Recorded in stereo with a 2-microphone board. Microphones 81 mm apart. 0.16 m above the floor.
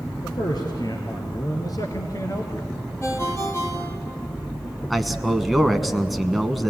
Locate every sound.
0.2 s a man speaking: 60° left (ahead or behind), 3 m; by 2.7 s 35° left (ahead or behind), 2 m
3.0 s a ringtone: 30° left (ahead or behind), 3.5 m
4.9 s a man speaking: centre (ahead or behind), 1.1 m